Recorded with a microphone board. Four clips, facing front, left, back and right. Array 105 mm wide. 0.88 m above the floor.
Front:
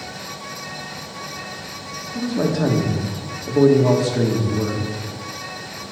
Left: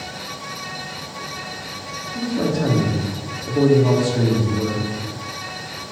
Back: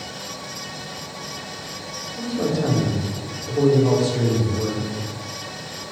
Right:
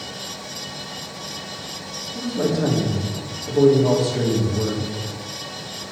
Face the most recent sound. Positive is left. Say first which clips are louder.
# even, front 2 dB
turn(degrees=15)